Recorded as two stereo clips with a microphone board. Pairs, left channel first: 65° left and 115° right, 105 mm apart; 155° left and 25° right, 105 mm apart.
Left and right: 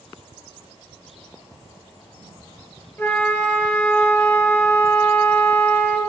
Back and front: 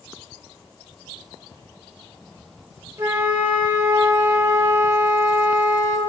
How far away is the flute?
About 1.0 m.